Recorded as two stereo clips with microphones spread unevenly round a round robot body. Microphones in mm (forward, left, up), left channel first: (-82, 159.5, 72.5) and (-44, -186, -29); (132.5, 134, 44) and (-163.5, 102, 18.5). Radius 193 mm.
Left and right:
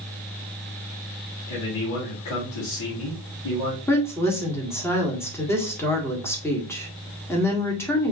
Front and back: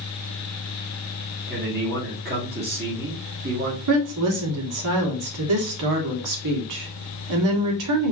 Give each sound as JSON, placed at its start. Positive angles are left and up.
{"t": 1.5, "sound": "a man speaking", "azimuth_deg": 135, "distance_m": 2.0}
{"t": 3.9, "sound": "a woman speaking", "azimuth_deg": -175, "distance_m": 1.7}